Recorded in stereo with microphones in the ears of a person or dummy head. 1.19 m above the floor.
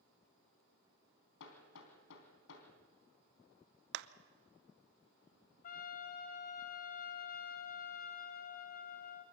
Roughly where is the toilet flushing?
No toilet flushing in this recording.